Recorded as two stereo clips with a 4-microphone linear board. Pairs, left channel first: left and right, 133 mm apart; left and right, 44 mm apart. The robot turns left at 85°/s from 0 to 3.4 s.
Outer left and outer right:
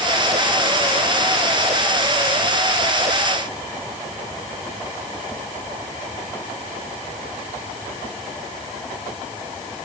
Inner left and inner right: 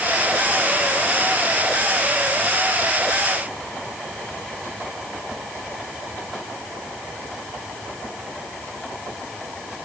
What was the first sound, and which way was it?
Only background noise.